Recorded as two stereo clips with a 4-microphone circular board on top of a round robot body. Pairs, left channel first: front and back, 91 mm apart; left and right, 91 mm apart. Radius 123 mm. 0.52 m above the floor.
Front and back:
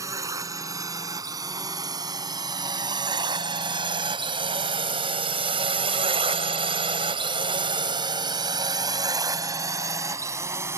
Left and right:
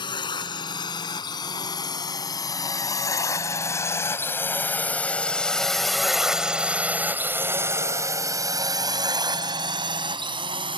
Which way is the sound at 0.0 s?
125° left.